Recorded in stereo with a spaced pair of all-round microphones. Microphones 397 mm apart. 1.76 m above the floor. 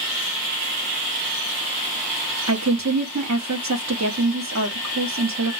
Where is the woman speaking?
45° right (ahead or behind), 0.9 m.